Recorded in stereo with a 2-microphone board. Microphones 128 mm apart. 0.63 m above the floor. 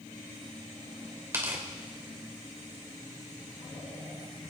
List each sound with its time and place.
1.3 s tearing paper: 20° right (ahead or behind), 3 m